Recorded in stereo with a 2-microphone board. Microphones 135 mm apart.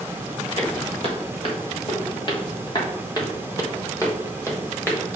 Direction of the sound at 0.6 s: 50° left (ahead or behind).